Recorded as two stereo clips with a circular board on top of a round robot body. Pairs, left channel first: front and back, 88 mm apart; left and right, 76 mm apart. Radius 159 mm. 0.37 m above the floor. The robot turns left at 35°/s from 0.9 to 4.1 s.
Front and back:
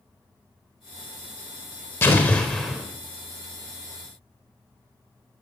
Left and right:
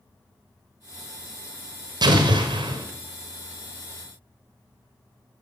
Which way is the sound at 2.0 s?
60° right.